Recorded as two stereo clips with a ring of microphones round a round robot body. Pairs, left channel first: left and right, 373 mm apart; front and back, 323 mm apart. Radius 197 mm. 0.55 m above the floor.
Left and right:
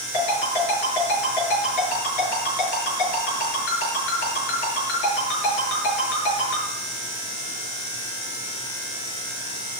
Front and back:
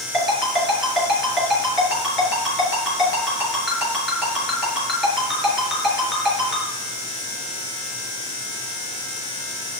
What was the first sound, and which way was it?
A ringtone, 90° left.